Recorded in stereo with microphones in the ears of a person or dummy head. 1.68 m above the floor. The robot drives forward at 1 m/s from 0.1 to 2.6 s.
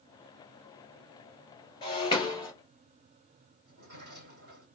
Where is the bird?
I don't hear a bird.